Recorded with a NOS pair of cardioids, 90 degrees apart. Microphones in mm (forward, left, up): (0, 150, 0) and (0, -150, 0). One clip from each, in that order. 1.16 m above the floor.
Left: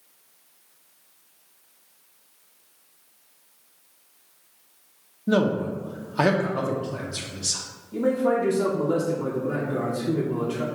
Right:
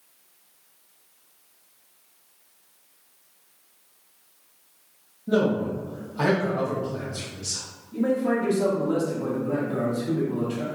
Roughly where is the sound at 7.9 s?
Ahead.